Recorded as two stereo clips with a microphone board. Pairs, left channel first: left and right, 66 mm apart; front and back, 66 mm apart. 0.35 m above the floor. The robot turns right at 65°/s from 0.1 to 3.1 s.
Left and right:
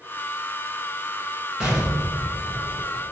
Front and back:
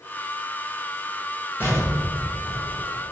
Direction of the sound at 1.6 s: 15° right.